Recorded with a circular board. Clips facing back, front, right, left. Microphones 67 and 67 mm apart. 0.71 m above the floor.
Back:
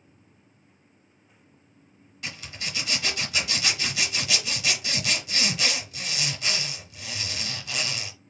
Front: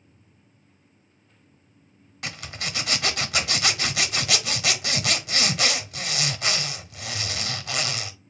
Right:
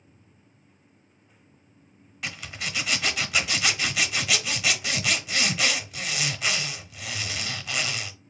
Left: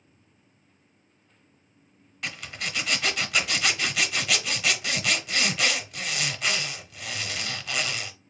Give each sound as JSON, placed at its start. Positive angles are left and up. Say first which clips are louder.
{"t": 2.2, "sound": "a zipper", "louder": "front 3 dB, even", "azimuth_deg": 0, "distance_m": 0.7}